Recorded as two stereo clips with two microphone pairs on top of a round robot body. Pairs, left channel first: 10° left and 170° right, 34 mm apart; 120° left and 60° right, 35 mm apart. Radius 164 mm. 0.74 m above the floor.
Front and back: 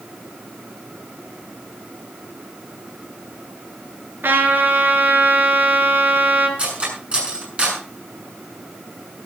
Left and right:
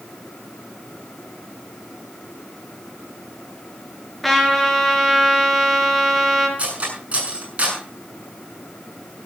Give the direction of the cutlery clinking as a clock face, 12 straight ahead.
4 o'clock.